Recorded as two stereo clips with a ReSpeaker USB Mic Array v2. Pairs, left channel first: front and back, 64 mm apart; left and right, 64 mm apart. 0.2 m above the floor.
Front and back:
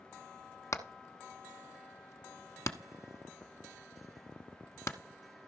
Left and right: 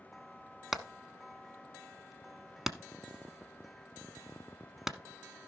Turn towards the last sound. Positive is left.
turn(degrees=-5)